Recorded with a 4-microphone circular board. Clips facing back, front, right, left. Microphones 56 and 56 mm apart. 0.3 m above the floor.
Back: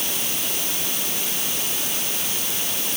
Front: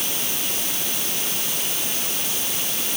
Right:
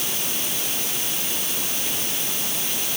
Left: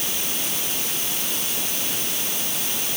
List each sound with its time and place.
Only background noise.